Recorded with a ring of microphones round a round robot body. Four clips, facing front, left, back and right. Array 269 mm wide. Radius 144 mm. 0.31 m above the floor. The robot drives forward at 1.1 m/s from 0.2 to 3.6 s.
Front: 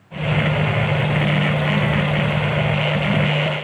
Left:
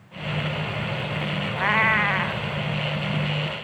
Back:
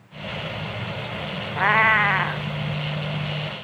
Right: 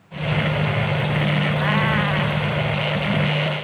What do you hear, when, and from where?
1.6 s a cat meowing: 170° left